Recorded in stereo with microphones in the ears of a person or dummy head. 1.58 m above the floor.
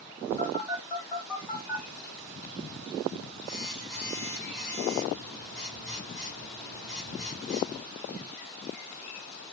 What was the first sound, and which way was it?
A phone buzzing, 10° left (ahead or behind).